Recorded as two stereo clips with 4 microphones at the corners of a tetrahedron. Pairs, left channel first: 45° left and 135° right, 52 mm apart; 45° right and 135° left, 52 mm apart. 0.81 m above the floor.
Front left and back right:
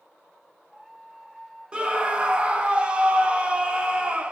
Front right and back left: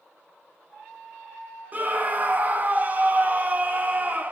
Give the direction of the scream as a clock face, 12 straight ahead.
6 o'clock.